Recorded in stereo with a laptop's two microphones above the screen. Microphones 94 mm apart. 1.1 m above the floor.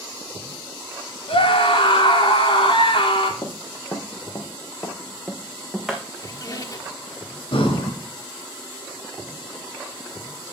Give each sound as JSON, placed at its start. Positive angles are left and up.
{"t": 1.3, "sound": "a scream", "side_deg": 80, "distance_m": 3.5}
{"t": 3.4, "sound": "running footsteps", "side_deg": 50, "distance_m": 2.0}
{"t": 6.2, "sound": "a squeak", "side_deg": 40, "distance_m": 1.1}
{"t": 7.5, "sound": "breathing", "side_deg": 75, "distance_m": 2.5}